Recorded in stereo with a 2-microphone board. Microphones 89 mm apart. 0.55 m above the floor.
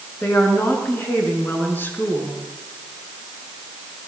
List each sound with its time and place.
0.2 s a woman speaking: 20° left (ahead or behind), 5.5 m